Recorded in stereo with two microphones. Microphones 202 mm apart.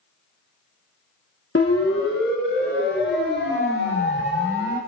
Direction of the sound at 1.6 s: 70° left (ahead or behind).